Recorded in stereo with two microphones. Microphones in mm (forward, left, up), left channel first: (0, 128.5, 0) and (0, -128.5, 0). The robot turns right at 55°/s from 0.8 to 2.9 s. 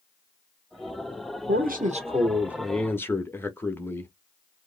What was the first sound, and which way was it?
A man speaking, 65° right.